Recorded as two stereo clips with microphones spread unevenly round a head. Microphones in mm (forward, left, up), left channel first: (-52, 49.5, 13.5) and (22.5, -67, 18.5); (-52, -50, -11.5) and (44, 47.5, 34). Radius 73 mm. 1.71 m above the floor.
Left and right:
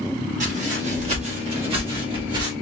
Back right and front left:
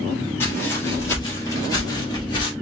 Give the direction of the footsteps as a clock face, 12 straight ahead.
2 o'clock.